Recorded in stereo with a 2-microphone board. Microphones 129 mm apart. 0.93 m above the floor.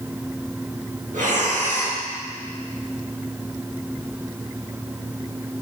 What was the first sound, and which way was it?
Breathing, 75° right (ahead or behind).